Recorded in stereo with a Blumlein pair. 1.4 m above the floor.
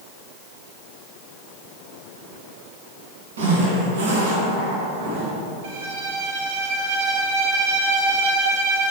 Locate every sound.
3.4 s a zipper: 65° right, 1.7 m
5.6 s a violin: 55° right, 0.9 m